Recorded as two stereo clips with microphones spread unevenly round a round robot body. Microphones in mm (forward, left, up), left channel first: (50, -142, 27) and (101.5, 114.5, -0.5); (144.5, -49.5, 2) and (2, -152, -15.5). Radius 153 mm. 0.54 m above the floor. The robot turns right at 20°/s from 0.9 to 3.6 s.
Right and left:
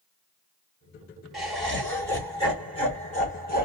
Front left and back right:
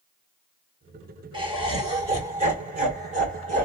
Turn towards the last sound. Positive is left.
turn(degrees=-155)